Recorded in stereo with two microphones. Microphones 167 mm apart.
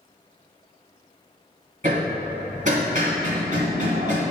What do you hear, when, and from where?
1.8 s hammering: 50° right (ahead or behind), 1.6 m